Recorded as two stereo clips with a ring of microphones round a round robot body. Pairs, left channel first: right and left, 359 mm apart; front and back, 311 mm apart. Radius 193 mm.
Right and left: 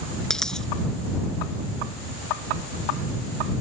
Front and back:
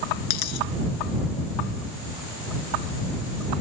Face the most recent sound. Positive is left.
turn(degrees=0)